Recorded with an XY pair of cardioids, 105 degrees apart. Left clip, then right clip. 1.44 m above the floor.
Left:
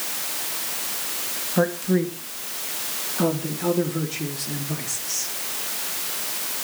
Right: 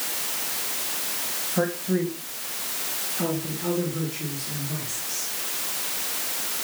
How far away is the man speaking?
About 3 m.